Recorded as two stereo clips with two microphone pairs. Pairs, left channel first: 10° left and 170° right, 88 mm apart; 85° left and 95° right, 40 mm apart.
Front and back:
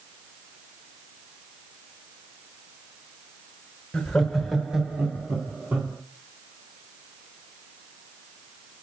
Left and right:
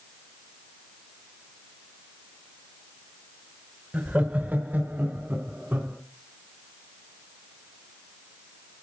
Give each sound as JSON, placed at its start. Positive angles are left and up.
{"t": 3.9, "sound": "laughter", "azimuth_deg": -70, "distance_m": 1.7}